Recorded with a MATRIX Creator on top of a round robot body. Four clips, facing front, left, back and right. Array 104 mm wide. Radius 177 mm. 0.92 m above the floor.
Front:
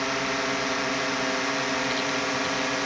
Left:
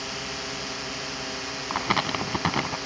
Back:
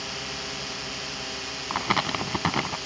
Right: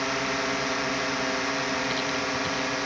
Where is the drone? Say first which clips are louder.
Right 7 dB, front 10 dB; 40° right; by 2.9 s 30° right.